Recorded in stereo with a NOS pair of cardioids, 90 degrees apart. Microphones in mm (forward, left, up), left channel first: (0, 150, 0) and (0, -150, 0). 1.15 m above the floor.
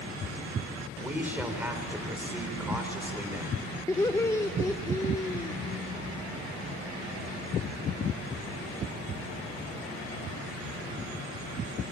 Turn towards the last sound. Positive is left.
turn(degrees=10)